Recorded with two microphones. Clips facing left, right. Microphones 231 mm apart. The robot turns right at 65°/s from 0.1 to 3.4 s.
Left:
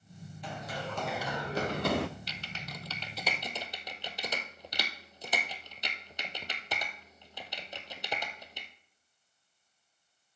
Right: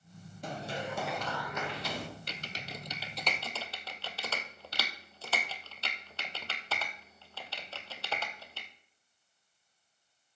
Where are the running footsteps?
45° right (ahead or behind), 2.5 m; by 2.1 s 75° left (ahead or behind), 0.7 m.